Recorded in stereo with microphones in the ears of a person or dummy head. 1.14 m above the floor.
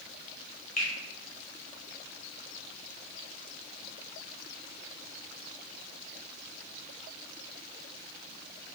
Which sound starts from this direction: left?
A finger snap, at 0.8 s.